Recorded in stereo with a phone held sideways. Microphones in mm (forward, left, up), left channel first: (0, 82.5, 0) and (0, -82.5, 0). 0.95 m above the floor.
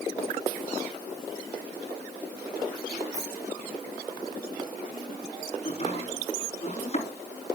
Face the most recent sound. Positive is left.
turn(degrees=45)  # may be behind; listen again after turning